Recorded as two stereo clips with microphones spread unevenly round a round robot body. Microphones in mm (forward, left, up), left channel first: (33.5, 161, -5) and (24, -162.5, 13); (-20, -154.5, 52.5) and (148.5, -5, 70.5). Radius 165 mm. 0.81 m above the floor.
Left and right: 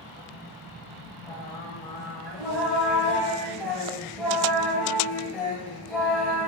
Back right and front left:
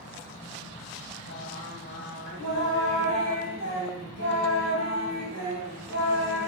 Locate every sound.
1.3 s singing: straight behind, 0.7 m